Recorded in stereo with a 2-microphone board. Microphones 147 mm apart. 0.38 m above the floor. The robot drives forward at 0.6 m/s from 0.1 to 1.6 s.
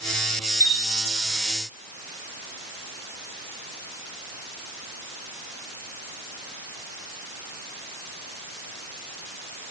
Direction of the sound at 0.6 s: 55° right (ahead or behind).